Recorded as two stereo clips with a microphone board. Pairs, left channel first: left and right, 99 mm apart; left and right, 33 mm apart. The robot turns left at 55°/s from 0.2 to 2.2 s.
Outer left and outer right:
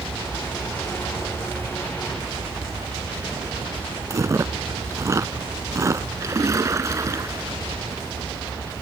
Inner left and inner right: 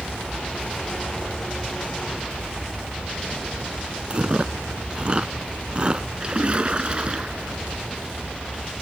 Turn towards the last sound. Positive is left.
turn(degrees=-30)  # may be behind; listen again after turning